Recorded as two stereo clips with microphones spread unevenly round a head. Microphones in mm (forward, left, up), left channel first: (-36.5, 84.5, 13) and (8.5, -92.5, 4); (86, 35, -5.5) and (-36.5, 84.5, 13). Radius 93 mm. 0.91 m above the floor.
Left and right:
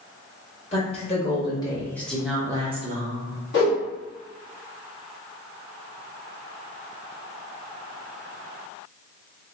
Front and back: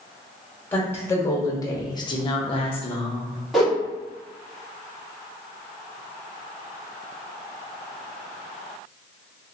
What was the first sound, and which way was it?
A woman speaking, 50° left.